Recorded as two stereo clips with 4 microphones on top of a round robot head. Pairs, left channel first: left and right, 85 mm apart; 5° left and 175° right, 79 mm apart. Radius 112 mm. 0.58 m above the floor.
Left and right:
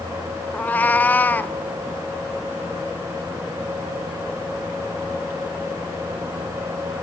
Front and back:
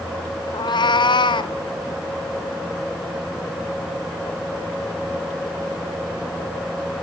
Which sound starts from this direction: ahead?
A cat meowing, at 0.5 s.